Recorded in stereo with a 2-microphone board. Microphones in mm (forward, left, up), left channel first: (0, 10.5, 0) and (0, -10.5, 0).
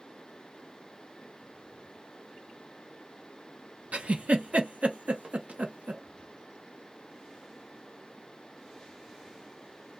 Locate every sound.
3.9 s a giggle: 85° right, 0.7 m